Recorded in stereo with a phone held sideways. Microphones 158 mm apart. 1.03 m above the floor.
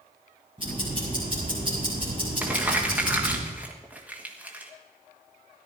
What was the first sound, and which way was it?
Ticking, 35° right (ahead or behind).